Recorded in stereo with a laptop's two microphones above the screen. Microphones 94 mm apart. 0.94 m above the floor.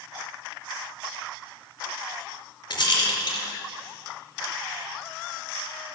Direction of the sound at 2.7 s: 50° left (ahead or behind).